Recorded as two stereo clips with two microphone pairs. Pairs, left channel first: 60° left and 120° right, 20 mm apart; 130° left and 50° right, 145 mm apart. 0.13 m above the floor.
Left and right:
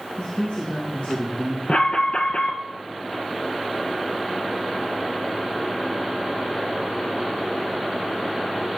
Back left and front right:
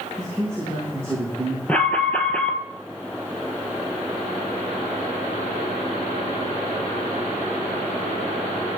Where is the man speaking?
50° left, 8 m.